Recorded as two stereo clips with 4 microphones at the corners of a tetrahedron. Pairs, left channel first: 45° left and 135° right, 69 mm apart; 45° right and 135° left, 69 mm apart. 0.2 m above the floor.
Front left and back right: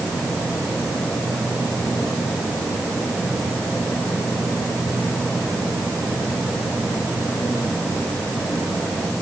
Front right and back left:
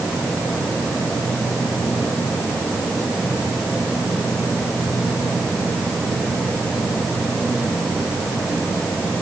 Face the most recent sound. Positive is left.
No sound to turn to.